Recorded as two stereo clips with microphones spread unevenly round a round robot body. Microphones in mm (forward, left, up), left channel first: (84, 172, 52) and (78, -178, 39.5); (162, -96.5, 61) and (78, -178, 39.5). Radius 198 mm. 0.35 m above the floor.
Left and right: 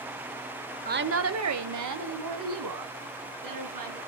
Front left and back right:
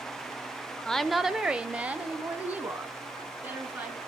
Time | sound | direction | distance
0.8 | a woman speaking | 50° right | 1.2 m